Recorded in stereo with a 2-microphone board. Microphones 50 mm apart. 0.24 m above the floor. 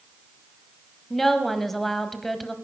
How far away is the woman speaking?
About 1.1 m.